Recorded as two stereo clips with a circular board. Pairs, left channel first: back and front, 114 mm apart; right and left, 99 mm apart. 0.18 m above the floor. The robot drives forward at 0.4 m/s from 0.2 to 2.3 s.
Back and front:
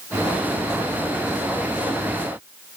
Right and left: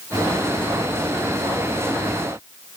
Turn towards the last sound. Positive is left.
No sound to turn to.